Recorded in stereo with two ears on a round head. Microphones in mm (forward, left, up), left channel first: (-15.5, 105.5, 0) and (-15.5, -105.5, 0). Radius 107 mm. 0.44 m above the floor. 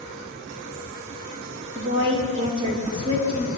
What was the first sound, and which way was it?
A woman speaking, 20° right (ahead or behind).